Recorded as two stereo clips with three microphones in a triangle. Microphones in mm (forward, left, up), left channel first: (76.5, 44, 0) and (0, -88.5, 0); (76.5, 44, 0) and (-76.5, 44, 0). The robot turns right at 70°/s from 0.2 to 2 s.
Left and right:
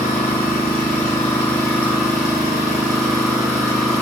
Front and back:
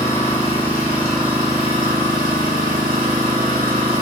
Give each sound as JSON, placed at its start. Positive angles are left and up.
{"t": 0.0, "sound": "an engine running", "azimuth_deg": 35, "distance_m": 1.5}